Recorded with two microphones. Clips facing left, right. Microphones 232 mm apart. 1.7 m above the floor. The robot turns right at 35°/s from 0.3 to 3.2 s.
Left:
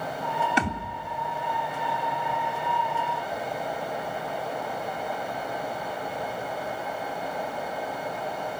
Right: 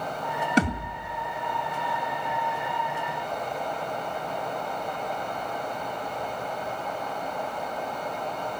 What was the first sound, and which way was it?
A thud, 45° right (ahead or behind).